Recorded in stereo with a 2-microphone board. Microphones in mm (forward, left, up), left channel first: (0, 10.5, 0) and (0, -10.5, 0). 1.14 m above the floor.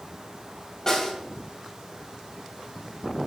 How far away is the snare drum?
About 3 m.